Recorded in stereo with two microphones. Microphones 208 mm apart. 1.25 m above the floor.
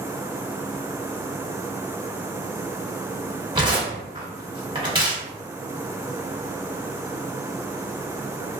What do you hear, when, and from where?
3.5 s tearing paper: 25° right (ahead or behind), 1.2 m